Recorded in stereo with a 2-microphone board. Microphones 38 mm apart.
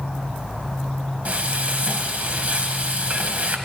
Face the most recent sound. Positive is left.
turn(degrees=-45)  # may be behind; listen again after turning